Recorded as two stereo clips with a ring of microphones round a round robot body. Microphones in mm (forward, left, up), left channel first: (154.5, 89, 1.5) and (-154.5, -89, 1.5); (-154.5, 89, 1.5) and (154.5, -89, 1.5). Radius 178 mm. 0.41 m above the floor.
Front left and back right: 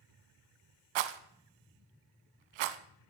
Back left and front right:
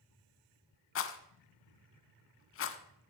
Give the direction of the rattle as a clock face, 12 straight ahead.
5 o'clock.